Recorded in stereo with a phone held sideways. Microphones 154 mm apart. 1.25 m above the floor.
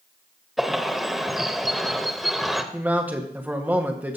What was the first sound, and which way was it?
A bird, centre (ahead or behind).